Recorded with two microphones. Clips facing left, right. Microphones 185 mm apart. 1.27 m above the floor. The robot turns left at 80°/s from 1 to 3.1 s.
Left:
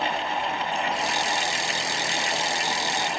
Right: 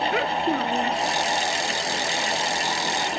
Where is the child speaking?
75° right (ahead or behind).